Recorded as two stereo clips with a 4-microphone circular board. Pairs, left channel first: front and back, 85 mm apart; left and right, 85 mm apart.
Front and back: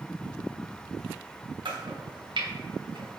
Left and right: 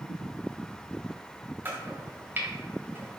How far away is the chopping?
About 0.7 m.